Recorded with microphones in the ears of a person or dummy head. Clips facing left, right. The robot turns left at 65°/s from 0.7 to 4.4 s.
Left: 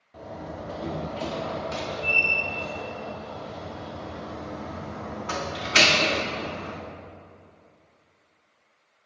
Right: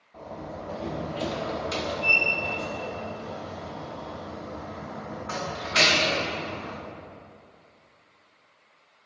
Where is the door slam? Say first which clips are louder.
Left 1 dB; 15° left, 1.1 m; by 6.8 s 135° left, 1.1 m.